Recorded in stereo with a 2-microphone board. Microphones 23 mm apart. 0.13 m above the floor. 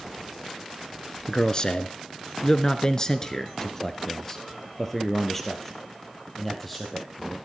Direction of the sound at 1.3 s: 35° left (ahead or behind).